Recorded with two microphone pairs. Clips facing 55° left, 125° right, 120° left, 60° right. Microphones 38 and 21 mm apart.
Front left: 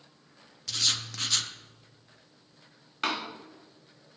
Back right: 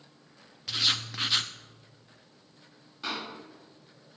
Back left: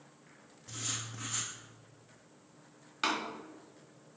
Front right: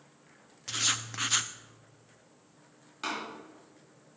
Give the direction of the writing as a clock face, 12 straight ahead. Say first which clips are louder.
Back right 2 dB, front right 10 dB; 2 o'clock.